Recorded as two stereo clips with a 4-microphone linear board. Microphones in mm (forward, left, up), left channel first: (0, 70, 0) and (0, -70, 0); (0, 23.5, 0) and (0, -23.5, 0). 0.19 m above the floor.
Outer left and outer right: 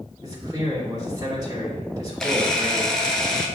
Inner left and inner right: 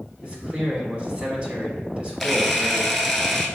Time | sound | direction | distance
0.2 | a man speaking | 25° right (ahead or behind) | 1.2 m
2.2 | a camera shutter | 5° left (ahead or behind) | 0.7 m